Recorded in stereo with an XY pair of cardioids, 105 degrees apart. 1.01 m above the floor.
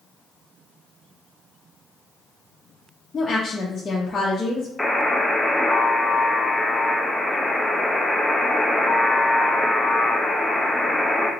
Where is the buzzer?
5° left, 0.6 m.